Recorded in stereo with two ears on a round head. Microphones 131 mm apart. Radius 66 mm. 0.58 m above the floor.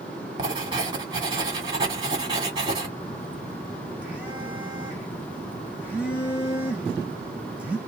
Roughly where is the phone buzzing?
Centre.